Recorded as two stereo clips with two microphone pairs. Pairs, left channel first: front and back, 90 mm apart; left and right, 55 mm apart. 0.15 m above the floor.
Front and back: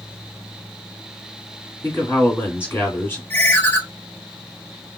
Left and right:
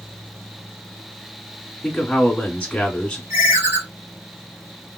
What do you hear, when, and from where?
1.8 s a man speaking: 35° left, 1.6 m
3.3 s a ringtone: 65° right, 1.1 m